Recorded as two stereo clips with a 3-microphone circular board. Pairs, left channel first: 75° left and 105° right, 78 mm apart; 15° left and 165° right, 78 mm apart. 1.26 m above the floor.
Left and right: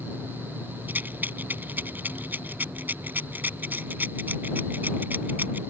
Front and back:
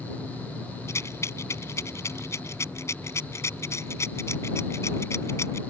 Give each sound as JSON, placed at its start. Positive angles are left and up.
{"t": 0.9, "sound": "a rattle", "azimuth_deg": -35}